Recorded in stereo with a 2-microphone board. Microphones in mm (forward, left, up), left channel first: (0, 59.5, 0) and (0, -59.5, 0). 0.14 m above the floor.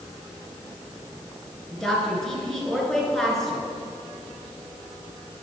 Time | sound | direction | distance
1.7 | a woman speaking | 5° left (ahead or behind) | 2 m